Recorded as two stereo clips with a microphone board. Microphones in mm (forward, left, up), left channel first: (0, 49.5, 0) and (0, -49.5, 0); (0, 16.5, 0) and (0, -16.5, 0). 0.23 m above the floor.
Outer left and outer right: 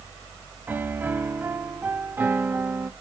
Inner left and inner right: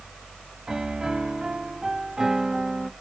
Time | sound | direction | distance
0.7 | a piano | 20° right (ahead or behind) | 0.9 m